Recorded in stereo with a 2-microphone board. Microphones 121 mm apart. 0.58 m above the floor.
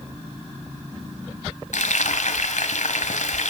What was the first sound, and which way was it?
Frying, 85° left.